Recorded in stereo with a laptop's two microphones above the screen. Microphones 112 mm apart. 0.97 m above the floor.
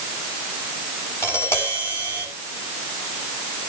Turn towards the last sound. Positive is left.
turn(degrees=25)  # may be behind; listen again after turning